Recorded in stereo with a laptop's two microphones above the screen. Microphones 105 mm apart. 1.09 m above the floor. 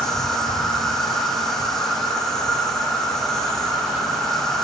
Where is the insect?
Centre (ahead or behind), 3 m.